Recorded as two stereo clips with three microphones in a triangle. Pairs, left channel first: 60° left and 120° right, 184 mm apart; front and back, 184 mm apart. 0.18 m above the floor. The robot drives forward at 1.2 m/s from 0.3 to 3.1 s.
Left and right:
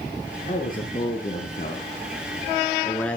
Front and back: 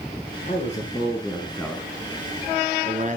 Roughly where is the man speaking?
Ahead left.